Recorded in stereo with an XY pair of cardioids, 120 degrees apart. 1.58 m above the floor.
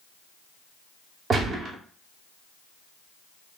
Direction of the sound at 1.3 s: 35° right.